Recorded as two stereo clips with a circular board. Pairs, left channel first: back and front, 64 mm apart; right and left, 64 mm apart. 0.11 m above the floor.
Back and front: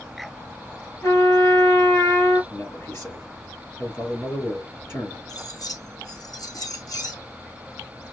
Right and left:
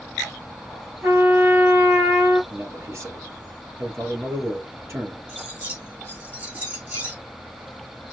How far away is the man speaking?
About 3.5 m.